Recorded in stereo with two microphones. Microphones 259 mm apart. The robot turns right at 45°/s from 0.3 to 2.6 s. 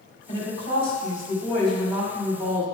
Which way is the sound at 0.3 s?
115° left.